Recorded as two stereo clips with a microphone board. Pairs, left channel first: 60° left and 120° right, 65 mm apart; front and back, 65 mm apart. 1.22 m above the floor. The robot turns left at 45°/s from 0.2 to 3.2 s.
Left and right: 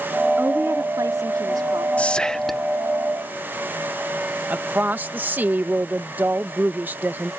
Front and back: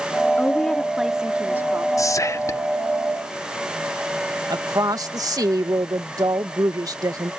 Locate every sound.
0.4 s a woman speaking: 65° right; by 1.9 s 130° right
2.0 s whispering: 5° right; by 2.7 s 35° right
4.5 s a woman speaking: straight behind